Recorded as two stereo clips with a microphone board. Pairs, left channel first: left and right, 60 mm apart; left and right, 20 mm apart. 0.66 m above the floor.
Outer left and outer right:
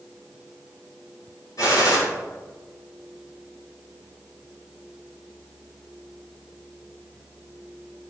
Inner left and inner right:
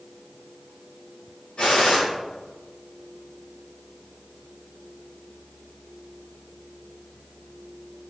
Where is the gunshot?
65° left (ahead or behind), 3.5 m.